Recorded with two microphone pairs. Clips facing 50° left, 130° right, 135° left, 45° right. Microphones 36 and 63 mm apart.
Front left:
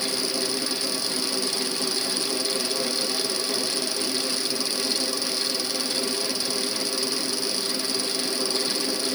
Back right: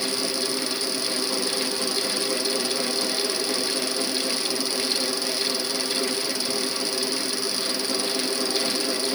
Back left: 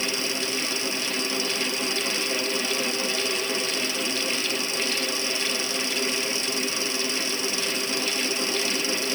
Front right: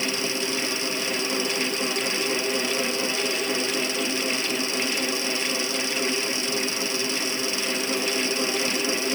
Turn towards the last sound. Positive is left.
No sound to turn to.